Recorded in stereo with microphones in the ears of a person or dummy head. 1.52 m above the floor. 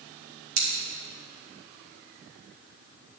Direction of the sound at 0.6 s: 80° right.